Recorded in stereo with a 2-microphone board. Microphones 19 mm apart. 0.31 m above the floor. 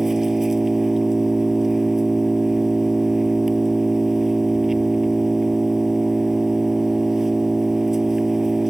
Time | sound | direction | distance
0.0 | an engine running | 20° right (ahead or behind) | ?